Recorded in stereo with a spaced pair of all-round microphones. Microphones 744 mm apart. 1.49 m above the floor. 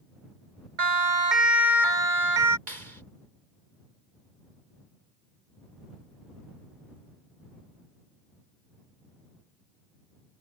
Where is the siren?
60° right (ahead or behind); by 2.6 s 85° right.